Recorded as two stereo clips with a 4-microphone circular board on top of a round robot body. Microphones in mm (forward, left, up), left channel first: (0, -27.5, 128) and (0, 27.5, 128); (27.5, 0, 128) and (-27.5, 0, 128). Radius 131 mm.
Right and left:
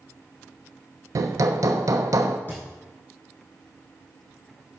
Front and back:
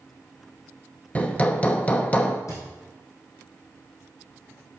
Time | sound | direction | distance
1.1 | hammering | 65° left | 0.9 m
2.5 | a thud | 30° right | 3 m